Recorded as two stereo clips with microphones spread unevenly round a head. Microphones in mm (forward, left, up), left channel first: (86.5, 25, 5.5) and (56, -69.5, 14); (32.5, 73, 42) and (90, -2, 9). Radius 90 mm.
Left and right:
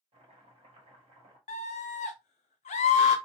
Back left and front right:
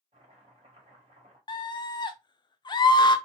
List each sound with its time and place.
0.1 s chopping: 100° right, 1.4 m
1.5 s a scream: 90° left, 0.6 m